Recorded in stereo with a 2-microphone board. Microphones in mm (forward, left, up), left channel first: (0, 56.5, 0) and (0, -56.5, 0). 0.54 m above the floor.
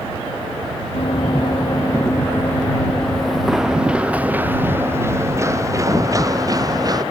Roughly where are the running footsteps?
Left.